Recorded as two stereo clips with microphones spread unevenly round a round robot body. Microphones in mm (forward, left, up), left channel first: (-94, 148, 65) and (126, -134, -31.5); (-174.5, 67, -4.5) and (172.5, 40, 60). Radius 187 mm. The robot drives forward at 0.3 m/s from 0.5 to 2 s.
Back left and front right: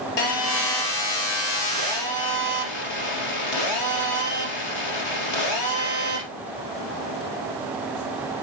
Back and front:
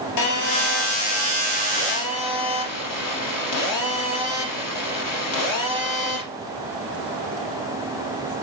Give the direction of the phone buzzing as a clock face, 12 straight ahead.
7 o'clock.